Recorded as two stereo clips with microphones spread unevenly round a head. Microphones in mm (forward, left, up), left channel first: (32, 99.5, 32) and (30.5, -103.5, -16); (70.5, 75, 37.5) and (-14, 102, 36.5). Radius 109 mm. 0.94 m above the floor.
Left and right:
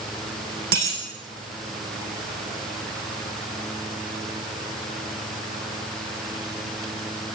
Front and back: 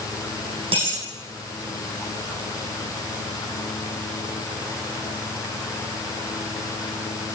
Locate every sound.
0.7 s a dropped coin: 145° right, 9 m